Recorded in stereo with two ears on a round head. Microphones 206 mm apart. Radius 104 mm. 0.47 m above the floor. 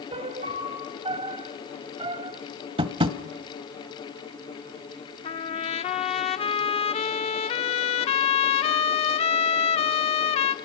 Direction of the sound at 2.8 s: 25° right (ahead or behind).